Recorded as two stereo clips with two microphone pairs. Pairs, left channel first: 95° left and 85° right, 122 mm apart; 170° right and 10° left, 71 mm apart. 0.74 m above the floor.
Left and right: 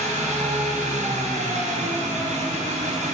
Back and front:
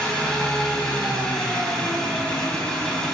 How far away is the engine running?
About 3.5 m.